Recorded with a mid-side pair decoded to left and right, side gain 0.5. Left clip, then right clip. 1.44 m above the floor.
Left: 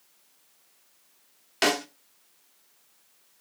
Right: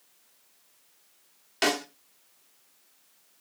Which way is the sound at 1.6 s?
20° left.